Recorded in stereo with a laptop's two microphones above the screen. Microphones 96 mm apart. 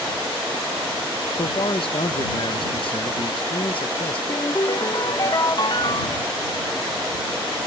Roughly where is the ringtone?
Left.